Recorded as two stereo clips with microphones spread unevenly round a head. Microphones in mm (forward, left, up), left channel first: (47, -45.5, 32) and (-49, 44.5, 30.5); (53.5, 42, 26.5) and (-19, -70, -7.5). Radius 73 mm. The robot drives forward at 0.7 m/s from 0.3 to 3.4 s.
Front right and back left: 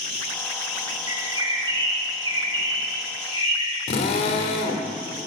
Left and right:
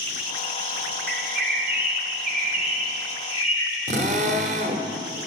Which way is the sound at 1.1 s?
160° right.